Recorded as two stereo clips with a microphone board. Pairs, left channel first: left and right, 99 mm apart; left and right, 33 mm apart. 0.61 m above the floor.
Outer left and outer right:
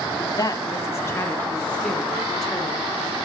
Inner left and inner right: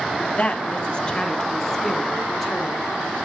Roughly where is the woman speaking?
Left.